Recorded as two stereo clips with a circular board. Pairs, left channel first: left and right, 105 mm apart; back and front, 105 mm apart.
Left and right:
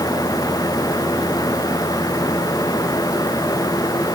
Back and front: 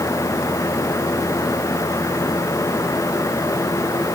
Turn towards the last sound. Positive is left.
No sound to turn to.